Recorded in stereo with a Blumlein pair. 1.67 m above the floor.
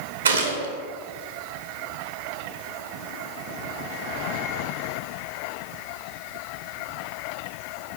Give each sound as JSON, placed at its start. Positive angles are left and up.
{"t": 0.2, "sound": "a gunshot", "azimuth_deg": -70, "distance_m": 0.6}